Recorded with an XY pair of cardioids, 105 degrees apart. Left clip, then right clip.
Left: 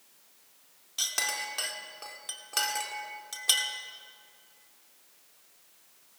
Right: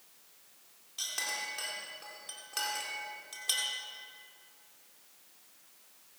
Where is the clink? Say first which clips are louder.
Left 5 dB; 45° left, 2.5 m.